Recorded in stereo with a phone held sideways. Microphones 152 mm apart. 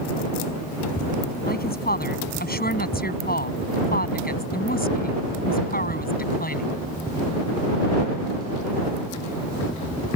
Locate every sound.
1.4 s a woman speaking: 85° left; by 6.8 s 75° left (ahead or behind)